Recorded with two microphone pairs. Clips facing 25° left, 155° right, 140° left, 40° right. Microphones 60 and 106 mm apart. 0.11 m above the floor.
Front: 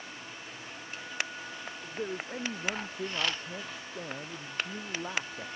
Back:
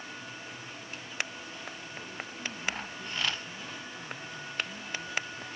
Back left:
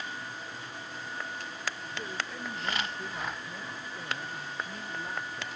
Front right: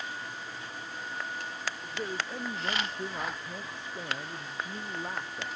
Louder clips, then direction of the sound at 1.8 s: Front 5 dB, front right 2 dB; 20° left.